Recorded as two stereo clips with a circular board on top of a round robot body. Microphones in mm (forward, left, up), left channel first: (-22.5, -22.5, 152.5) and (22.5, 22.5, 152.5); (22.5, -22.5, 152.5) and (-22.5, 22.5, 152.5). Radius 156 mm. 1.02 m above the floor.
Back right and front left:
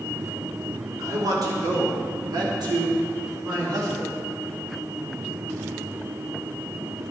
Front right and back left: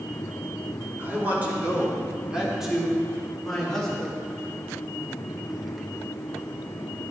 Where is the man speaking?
75° left, 3.5 m; by 4.2 s 30° left, 4.5 m.